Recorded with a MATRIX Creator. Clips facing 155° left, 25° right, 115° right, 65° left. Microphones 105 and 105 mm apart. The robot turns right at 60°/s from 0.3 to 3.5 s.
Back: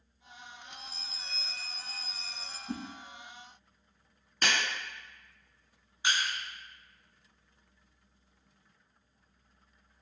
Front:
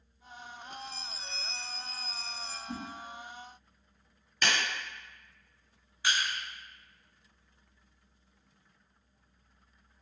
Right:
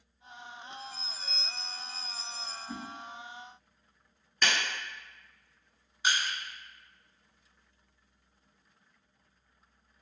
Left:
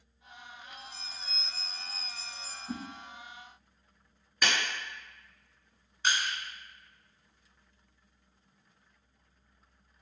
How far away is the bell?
About 0.6 m.